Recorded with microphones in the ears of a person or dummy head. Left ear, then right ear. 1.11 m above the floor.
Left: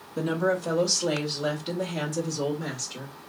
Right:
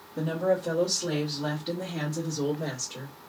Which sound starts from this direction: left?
A woman speaking, at 0.2 s.